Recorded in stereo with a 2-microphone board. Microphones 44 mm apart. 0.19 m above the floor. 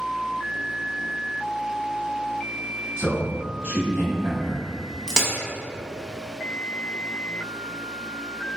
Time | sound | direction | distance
3.0 | a man speaking | 25° right (ahead or behind) | 1.0 m
5.1 | a crack | 15° right (ahead or behind) | 0.6 m